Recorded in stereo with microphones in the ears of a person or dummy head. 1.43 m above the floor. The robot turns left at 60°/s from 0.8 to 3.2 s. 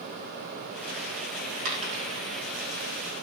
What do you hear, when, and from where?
1.6 s a dropped coin: 45° right (ahead or behind), 3.5 m; by 2.2 s 20° right (ahead or behind), 3.5 m